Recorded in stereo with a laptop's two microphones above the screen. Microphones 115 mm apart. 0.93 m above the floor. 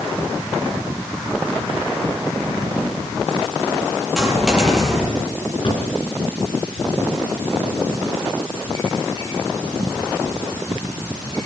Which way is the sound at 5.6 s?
45° left (ahead or behind).